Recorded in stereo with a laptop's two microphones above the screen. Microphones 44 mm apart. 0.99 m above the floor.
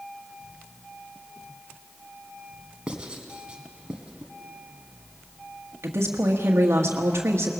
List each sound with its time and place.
2.9 s writing: 20° right (ahead or behind), 1.4 m
5.8 s a woman speaking: 80° right, 1.4 m